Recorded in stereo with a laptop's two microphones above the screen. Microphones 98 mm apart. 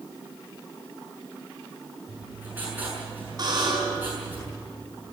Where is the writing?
20° right (ahead or behind), 7.5 m.